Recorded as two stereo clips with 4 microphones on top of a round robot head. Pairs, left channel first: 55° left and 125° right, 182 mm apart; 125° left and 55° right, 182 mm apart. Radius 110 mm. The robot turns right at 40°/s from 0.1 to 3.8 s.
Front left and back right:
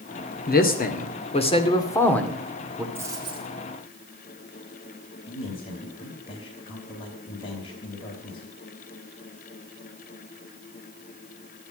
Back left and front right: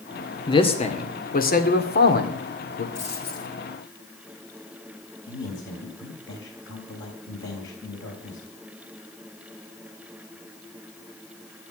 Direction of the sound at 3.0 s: 155° left.